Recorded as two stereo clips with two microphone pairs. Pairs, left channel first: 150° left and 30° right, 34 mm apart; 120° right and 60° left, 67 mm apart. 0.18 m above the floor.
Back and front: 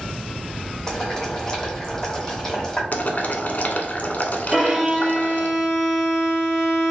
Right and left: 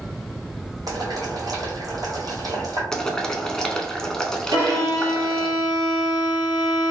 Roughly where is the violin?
Ahead left.